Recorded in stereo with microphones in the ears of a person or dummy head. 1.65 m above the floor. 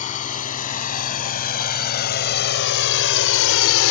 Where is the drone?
35° left (ahead or behind); by 3.9 s 80° left.